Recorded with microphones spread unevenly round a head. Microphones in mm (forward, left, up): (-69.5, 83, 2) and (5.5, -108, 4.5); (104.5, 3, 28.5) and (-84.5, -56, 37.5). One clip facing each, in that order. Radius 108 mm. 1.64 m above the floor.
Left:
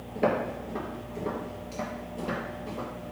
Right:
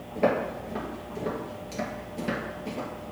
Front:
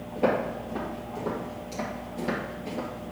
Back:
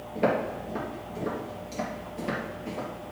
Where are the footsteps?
175° right, 1.7 m; by 3.1 s 60° right, 2.0 m.